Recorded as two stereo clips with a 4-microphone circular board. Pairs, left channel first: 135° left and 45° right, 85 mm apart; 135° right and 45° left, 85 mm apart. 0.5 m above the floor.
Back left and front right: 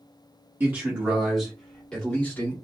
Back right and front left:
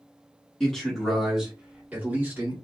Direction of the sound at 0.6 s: 65° right.